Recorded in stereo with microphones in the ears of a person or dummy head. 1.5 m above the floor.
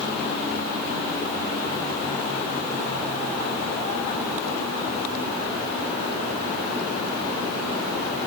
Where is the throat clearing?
No throat clearing in this recording.